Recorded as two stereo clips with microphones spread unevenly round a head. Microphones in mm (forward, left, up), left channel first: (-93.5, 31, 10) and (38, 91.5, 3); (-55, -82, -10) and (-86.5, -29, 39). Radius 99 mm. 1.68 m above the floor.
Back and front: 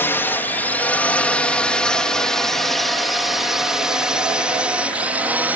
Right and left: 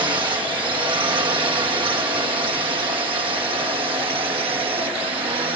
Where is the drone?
130° left; by 5.6 s 100° left.